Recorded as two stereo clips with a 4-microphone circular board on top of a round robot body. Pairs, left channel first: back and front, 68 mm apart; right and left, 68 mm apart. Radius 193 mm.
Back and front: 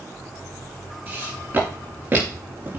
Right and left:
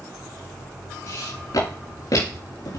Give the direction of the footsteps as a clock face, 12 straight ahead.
2 o'clock.